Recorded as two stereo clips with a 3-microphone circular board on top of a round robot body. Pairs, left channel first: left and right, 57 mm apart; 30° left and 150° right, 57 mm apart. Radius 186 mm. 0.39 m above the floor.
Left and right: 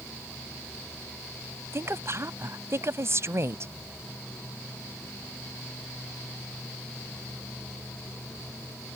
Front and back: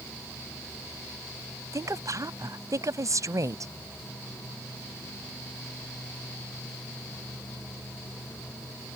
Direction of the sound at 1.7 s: 130° right.